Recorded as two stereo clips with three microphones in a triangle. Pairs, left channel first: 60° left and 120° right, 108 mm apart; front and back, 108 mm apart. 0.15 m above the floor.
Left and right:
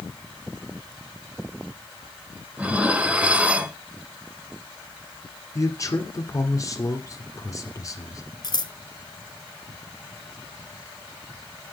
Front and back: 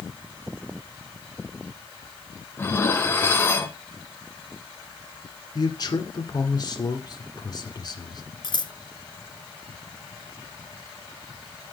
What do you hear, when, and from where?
2.6 s dishes clattering: 50° right, 1.1 m
5.5 s a man speaking: 20° left, 2 m
8.4 s scissors: 25° left, 0.7 m